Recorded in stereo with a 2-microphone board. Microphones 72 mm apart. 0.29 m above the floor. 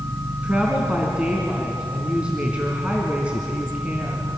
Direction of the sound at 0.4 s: 15° right (ahead or behind).